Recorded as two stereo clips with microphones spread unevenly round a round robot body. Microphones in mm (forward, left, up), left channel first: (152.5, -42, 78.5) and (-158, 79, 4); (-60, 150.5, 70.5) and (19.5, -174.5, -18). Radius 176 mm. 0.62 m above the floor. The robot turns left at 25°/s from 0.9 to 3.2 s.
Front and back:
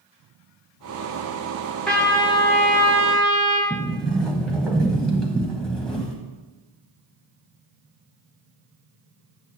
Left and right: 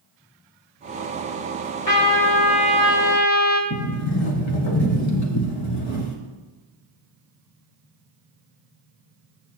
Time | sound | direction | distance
1.9 | a trumpet | 70° left | 2.5 m
3.7 | a sliding door | 65° left | 1.1 m